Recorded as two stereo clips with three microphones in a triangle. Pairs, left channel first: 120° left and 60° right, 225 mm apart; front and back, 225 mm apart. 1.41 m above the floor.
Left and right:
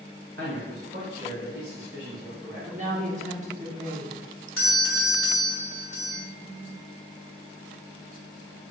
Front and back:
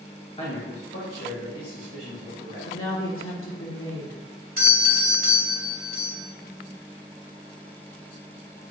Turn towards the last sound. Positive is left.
turn(degrees=130)